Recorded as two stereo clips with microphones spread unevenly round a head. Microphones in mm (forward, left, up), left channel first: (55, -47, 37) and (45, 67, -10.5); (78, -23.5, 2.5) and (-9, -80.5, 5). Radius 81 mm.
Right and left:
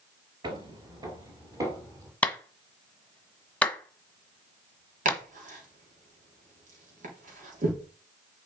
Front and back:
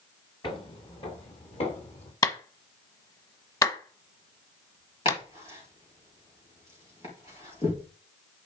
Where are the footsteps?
30° left, 1.9 m; by 2.1 s 25° left, 3.5 m.